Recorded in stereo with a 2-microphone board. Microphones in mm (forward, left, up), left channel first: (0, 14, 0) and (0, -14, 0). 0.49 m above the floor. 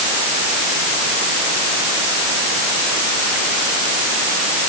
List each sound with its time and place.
Only background noise.